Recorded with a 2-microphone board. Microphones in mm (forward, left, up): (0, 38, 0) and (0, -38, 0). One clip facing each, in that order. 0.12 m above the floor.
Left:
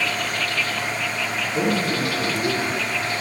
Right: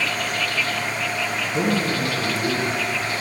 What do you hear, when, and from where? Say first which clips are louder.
1.4 s a man speaking: even; 20° right (ahead or behind), 1.6 m; by 2.7 s 25° left (ahead or behind), 1.9 m